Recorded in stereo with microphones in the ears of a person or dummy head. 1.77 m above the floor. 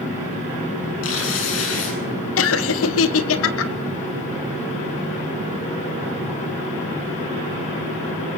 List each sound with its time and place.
1.0 s tearing paper: 80° left, 9 m
2.4 s laughter: 80° left, 1.7 m